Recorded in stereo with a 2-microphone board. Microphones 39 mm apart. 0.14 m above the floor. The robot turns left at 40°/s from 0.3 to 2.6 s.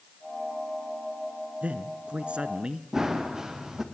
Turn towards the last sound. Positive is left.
turn(degrees=-15)  # may be behind; listen again after turning